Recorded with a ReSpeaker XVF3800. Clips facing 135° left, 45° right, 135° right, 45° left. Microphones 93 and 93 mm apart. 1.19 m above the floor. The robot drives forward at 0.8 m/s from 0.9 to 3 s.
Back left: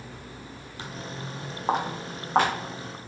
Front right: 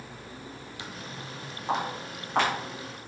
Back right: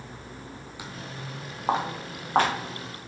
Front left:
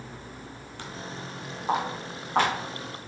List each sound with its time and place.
0.8 s footsteps: 150° left, 1.5 m; by 2.5 s straight behind, 3.5 m